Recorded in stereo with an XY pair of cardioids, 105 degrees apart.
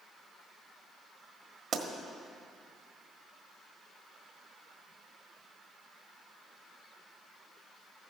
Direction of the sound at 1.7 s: 50° right.